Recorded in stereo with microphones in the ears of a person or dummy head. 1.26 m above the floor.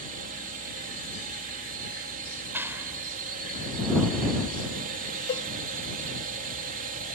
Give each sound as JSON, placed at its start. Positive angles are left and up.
{"t": 0.0, "sound": "a drone", "side_deg": -40}
{"t": 2.5, "sound": "a clap", "side_deg": -10}
{"t": 5.3, "sound": "a cowbell", "side_deg": 25}